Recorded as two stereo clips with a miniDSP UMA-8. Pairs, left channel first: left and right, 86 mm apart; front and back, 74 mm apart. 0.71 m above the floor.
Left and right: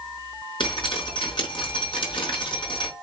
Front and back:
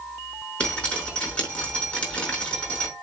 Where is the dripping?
70° left, 5 m.